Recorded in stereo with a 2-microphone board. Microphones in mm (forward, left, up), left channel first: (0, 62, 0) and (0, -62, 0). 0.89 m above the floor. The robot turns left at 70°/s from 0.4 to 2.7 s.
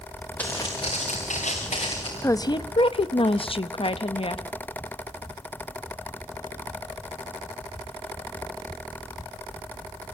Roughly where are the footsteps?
Centre.